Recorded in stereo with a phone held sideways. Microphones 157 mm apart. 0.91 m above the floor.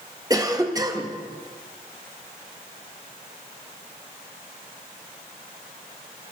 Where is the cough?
25° right (ahead or behind), 1.3 m.